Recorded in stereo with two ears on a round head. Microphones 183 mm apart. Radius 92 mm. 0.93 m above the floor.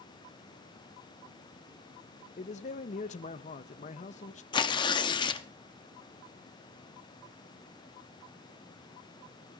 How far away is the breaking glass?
No breaking glass in this recording.